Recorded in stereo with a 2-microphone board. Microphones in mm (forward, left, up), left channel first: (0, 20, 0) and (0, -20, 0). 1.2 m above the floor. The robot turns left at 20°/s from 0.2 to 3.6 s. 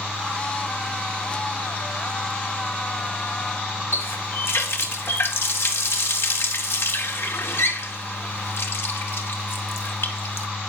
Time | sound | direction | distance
3.9 | a running tap | 80° left | 2 m